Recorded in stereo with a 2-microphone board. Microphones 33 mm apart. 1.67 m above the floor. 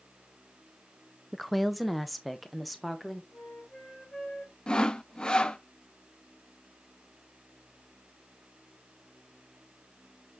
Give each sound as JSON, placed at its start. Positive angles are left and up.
{"t": 1.3, "sound": "a woman speaking", "side_deg": 0, "distance_m": 0.6}
{"t": 3.3, "sound": "a flute", "side_deg": 20, "distance_m": 4.5}
{"t": 4.7, "sound": "sawing", "side_deg": 30, "distance_m": 0.7}